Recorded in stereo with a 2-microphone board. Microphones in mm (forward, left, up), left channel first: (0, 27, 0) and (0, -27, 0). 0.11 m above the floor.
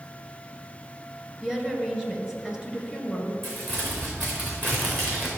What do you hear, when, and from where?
1.4 s a woman speaking: 15° right (ahead or behind), 1.8 m
3.4 s crumpling: 45° right (ahead or behind), 3.5 m